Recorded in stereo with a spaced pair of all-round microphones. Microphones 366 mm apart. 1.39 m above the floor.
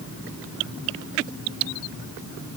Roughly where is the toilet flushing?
I don't hear a toilet flushing.